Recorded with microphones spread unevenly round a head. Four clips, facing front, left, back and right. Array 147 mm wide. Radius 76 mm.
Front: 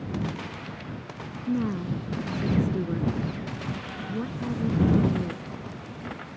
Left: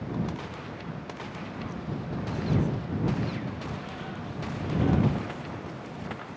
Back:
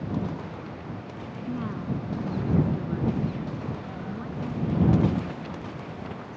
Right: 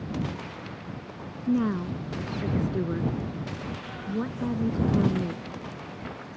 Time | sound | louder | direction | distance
1.5 | a woman speaking | right 14 dB, front 4 dB | 65° right | ?